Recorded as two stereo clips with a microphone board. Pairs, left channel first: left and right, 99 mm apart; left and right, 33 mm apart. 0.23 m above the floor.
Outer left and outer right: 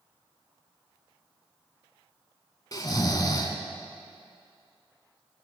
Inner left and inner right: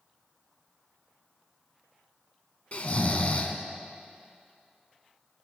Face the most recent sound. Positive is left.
turn(degrees=40)  # may be behind; listen again after turning